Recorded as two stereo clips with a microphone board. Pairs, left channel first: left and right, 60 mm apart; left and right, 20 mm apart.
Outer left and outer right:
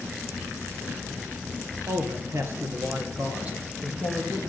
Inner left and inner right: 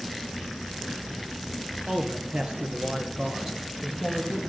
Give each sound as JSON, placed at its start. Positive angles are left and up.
{"t": 1.9, "sound": "a man speaking", "side_deg": -60, "distance_m": 2.0}